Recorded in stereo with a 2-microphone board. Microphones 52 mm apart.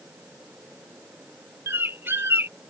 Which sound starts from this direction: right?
A bird, at 1.7 s.